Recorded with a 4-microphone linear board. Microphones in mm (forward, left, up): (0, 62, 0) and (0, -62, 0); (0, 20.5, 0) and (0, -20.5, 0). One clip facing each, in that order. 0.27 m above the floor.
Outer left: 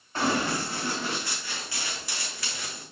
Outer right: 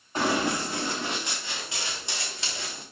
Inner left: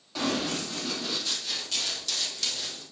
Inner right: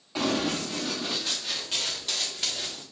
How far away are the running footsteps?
About 6 m.